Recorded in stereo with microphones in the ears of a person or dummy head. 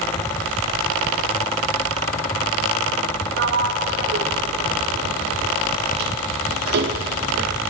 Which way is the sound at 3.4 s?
60° right (ahead or behind).